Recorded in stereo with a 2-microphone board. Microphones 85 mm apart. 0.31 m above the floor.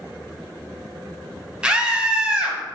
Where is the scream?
10° right (ahead or behind), 1.7 m.